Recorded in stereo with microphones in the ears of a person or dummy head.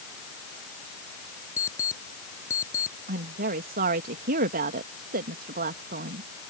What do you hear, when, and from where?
1.6 s an alarm clock: 15° left (ahead or behind)
3.1 s a woman speaking: 50° right (ahead or behind)